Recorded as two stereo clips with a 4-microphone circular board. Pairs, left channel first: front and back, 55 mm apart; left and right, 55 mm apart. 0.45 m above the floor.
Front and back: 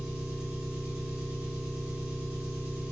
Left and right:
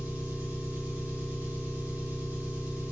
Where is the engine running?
115° right, 1.3 m.